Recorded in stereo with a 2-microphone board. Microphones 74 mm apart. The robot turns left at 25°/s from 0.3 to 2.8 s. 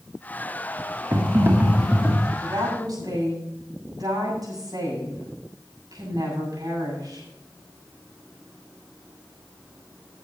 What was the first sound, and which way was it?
Typing on a keyboard, 140° right.